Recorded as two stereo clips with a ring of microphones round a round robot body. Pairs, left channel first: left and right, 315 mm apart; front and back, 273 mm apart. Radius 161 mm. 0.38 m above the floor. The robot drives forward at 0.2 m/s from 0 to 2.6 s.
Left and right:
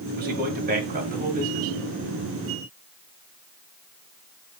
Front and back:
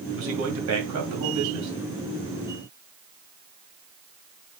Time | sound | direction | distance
0.1 | a man speaking | 150° right | 1.8 m